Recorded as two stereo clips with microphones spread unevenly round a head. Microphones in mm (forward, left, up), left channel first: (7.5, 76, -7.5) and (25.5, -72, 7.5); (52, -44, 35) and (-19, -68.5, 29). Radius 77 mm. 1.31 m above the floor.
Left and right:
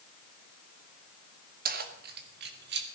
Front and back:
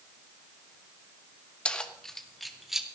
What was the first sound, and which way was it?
Keys jangling, 55° right.